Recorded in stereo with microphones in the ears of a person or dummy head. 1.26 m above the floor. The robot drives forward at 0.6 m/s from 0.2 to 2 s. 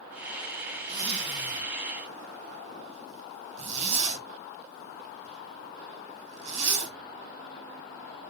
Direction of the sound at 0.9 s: 30° right (ahead or behind).